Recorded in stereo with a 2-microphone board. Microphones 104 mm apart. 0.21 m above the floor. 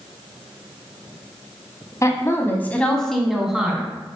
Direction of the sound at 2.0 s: 35° left (ahead or behind).